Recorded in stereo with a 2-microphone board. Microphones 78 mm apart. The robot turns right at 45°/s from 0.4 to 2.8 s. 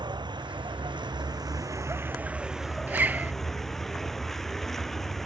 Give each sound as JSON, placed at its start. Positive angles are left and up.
{"t": 0.0, "sound": "a vehicle", "azimuth_deg": -105}
{"t": 2.9, "sound": "a zipper", "side_deg": -25}